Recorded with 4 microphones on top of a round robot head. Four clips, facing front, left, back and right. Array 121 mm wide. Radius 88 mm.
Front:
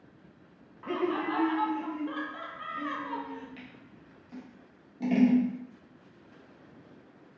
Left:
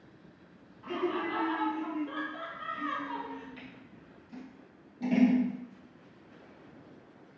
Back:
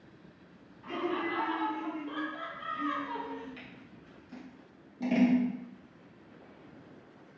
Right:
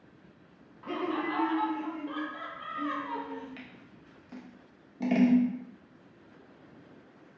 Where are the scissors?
90° right, 1.0 m.